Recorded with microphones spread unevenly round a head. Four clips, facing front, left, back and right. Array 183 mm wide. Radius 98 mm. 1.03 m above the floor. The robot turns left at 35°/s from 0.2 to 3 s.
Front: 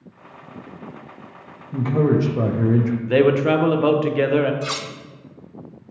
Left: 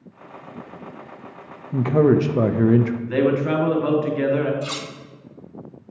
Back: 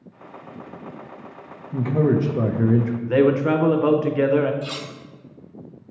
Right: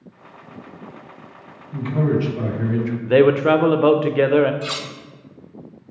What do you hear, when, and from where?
1.7 s a man speaking: 105° left, 0.5 m; by 2.9 s 60° left, 0.5 m
3.0 s a man speaking: 145° right, 0.5 m
4.6 s cutlery clinking: 20° right, 0.8 m